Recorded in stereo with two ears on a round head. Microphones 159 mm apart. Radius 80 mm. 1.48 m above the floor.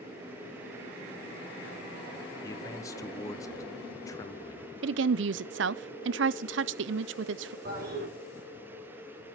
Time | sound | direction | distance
2.4 | a man speaking | 20° left (ahead or behind) | 1.1 m
4.8 | a woman speaking | 75° right (ahead or behind) | 0.5 m
7.7 | a toilet flushing | 60° right (ahead or behind) | 5 m